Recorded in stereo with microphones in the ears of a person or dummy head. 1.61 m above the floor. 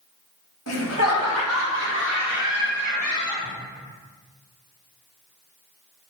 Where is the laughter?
75° left (ahead or behind), 1.1 m; by 3.5 s 45° left (ahead or behind), 2 m.